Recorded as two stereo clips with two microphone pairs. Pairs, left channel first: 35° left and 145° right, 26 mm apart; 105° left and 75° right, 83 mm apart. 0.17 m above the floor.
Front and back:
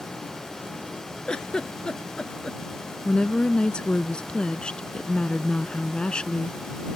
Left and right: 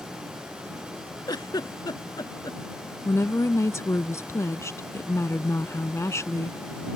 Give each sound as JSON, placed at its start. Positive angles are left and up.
{"t": 1.3, "sound": "a giggle", "azimuth_deg": 85}
{"t": 3.0, "sound": "a woman speaking", "azimuth_deg": 70}